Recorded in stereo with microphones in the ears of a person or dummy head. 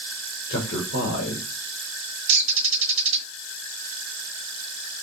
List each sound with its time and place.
0.5 s a man speaking: 65° left (ahead or behind), 2.5 m
2.3 s a bird: 60° right (ahead or behind), 1.2 m